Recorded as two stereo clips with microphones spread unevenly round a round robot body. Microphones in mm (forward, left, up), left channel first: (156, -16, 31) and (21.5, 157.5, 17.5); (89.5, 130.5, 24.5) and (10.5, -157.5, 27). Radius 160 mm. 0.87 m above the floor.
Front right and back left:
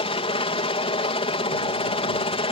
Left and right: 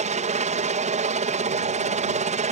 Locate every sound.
0.0 s a helicopter: 80° right